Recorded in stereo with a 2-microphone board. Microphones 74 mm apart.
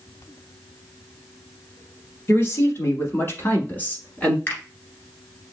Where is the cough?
No cough in this recording.